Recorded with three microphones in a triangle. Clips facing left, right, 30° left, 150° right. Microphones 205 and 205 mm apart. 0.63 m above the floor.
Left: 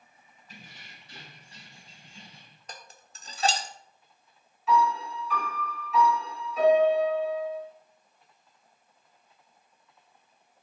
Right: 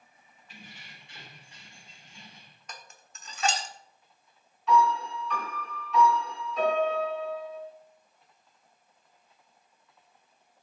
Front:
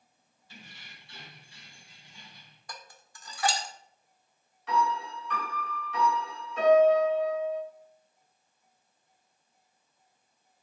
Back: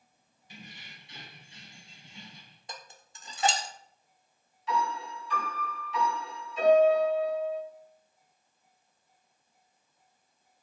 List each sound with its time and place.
0.5 s keys jangling: 140° left, 4 m; by 2.6 s 150° left, 3 m
2.7 s dishes clattering: 145° left, 1.1 m
4.7 s a piano: straight ahead, 5.5 m